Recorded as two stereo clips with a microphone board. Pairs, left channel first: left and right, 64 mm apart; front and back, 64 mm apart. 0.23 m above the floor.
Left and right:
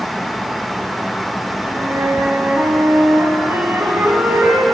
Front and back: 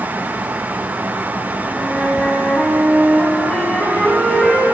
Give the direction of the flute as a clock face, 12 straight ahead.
2 o'clock.